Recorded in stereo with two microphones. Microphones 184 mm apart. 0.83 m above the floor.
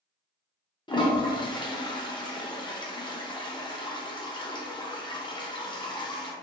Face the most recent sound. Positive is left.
turn(degrees=25)  # may be behind; listen again after turning